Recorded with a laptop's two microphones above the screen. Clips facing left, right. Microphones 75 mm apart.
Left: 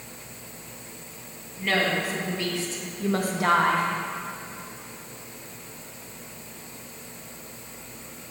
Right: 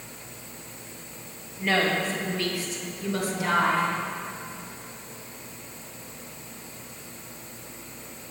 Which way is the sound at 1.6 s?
5° right (ahead or behind).